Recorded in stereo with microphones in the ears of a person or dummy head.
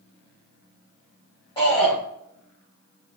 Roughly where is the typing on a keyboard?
No typing on a keyboard in this recording.